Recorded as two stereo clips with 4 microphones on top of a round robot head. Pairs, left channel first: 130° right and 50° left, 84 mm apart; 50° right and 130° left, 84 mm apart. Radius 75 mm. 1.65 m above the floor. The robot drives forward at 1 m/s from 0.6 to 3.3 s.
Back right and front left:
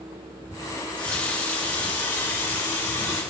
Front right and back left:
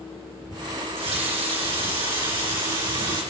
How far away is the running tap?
About 1.7 m.